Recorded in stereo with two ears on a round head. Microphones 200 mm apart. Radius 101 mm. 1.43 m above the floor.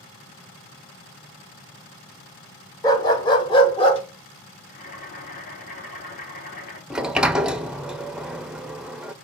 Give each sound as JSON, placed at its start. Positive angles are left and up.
{"t": 2.8, "sound": "a dog barking", "side_deg": 20, "distance_m": 1.4}
{"t": 4.7, "sound": "boiling", "side_deg": 45, "distance_m": 3.5}
{"t": 6.9, "sound": "a sliding door", "side_deg": -5, "distance_m": 0.6}